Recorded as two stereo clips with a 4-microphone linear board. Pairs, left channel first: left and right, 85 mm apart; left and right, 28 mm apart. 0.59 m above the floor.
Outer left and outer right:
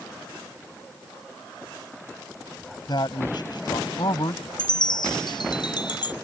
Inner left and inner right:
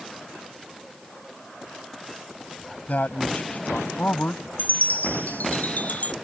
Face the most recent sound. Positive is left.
turn(degrees=60)  # may be behind; listen again after turning